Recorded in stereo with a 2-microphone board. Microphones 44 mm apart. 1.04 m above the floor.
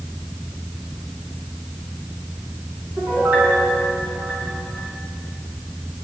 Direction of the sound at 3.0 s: 45° right (ahead or behind).